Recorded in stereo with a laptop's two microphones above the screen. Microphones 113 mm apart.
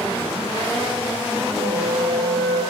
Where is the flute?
75° left (ahead or behind), 9.5 m.